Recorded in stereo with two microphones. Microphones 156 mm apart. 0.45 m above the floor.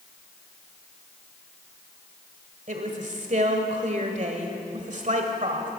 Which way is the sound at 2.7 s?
50° right (ahead or behind).